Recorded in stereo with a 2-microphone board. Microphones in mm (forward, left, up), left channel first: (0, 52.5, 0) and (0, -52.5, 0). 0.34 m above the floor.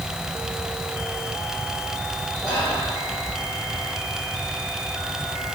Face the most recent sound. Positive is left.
turn(degrees=0)  # may be behind; listen again after turning